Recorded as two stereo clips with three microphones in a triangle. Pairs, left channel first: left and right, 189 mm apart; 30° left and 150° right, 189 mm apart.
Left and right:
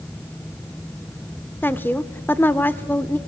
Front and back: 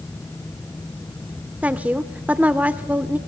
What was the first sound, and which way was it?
A woman speaking, 145° left.